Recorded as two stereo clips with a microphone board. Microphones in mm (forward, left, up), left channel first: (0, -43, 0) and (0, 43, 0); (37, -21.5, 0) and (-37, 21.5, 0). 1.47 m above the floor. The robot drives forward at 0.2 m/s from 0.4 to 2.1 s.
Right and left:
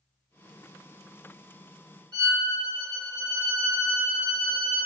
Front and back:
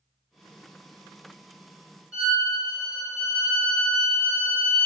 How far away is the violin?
About 1.6 m.